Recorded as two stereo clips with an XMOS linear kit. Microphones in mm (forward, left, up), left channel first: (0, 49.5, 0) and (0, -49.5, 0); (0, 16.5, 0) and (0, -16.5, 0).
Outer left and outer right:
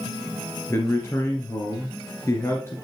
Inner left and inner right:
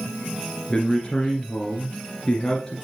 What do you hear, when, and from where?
0.7 s a man speaking: 25° left (ahead or behind), 2 m